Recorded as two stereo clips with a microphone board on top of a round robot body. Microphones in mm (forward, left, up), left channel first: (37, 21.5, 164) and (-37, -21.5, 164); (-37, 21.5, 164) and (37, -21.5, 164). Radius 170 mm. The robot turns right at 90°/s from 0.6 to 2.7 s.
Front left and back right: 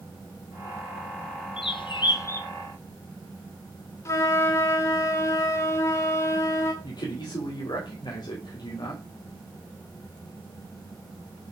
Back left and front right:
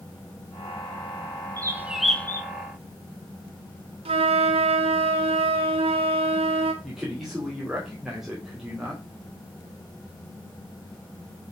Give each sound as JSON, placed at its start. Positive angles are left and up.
{"t": 1.6, "sound": "a bird", "azimuth_deg": 15, "distance_m": 1.2}
{"t": 4.0, "sound": "a flute", "azimuth_deg": -30, "distance_m": 0.5}
{"t": 6.8, "sound": "a man speaking", "azimuth_deg": 55, "distance_m": 2.0}